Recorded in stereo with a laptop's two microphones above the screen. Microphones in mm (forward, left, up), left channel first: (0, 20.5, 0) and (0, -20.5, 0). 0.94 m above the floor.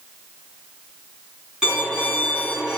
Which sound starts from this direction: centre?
A violin, at 1.6 s.